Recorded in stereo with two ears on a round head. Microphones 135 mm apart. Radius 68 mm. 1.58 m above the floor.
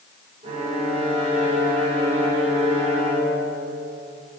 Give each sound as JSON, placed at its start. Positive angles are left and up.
{"t": 0.4, "sound": "a violin", "side_deg": -40, "distance_m": 1.9}